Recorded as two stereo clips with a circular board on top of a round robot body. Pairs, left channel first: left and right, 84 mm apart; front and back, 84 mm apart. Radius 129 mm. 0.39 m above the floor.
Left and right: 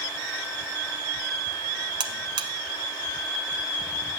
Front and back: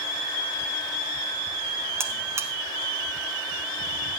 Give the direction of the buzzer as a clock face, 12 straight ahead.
4 o'clock.